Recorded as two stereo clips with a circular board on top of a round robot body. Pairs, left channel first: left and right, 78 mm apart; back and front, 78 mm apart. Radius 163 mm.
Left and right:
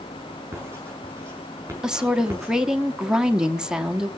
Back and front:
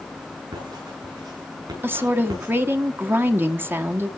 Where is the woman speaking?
20° right, 1.4 m.